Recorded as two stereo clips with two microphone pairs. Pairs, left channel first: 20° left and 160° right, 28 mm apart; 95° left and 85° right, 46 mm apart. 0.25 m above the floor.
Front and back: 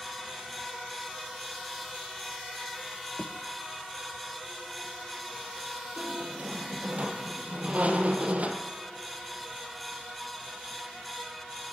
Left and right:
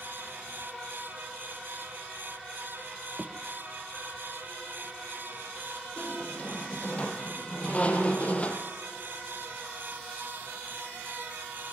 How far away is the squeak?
About 2.5 m.